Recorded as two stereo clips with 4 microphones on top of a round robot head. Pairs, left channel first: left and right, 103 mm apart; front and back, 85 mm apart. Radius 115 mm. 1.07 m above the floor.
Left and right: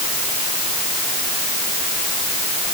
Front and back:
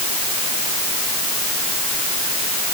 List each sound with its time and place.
Only background noise.